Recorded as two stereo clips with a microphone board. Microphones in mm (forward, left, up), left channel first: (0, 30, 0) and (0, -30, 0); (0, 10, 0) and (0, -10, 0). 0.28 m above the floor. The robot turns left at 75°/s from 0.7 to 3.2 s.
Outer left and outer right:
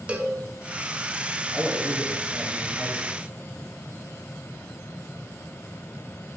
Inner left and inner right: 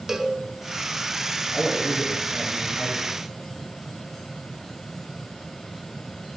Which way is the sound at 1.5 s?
Centre (ahead or behind).